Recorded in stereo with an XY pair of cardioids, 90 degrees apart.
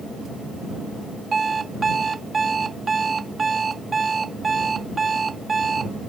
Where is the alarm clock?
40° right.